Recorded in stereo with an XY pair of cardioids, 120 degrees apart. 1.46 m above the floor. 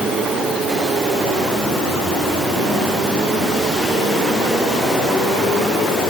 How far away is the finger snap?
No finger snap in this recording.